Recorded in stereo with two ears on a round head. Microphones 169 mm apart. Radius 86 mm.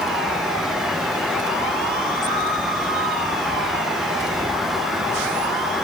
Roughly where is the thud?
No thud in this recording.